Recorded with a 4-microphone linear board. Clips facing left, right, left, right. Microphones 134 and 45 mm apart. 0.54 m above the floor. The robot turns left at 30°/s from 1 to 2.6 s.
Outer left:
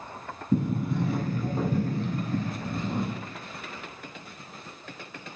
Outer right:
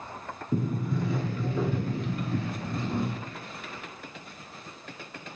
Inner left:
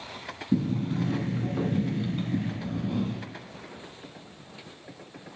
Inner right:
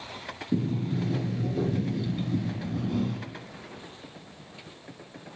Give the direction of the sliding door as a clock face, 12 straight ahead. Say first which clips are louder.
Outer left 3 dB, inner left 2 dB; 10 o'clock.